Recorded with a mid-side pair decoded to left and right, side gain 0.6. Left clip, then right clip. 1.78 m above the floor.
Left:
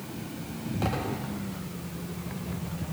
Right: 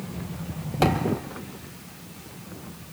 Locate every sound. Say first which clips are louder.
0.8 s a thud: right 8 dB; 60° right, 4 m